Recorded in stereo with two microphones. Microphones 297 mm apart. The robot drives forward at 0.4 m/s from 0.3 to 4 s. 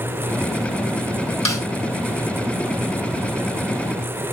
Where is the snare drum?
75° left (ahead or behind), 3 m.